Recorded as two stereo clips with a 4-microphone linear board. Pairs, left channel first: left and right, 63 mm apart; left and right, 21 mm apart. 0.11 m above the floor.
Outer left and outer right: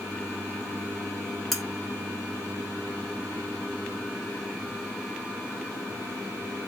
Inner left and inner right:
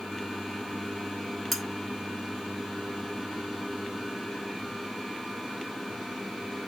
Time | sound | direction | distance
1.5 | cutlery clinking | centre (ahead or behind) | 0.7 m